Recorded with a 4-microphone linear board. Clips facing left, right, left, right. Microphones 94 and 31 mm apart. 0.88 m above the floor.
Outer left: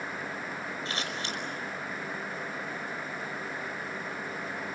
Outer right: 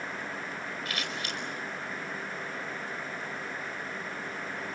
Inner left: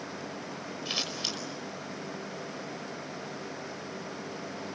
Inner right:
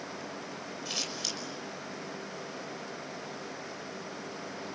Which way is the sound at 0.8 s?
30° left (ahead or behind).